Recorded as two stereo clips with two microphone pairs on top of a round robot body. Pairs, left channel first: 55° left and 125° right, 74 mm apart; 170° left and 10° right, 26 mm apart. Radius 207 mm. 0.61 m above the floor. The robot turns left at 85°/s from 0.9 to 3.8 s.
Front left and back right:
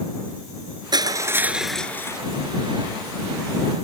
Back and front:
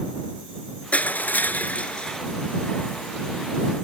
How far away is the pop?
I don't hear a pop.